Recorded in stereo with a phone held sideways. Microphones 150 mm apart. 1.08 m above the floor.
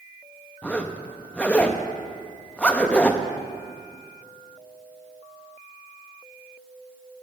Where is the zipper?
10° left (ahead or behind), 0.6 m.